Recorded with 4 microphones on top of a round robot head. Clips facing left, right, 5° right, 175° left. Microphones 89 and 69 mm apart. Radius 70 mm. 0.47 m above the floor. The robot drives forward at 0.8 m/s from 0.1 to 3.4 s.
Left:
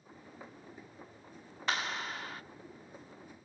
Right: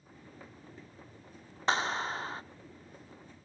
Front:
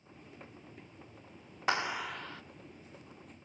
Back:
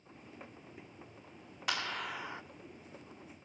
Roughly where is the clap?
Ahead right.